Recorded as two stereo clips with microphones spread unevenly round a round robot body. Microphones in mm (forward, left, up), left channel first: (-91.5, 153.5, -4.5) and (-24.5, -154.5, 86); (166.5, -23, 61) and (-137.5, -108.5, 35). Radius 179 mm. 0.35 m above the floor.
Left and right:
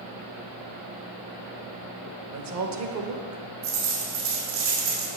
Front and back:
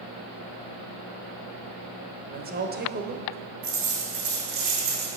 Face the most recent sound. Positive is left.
turn(degrees=-125)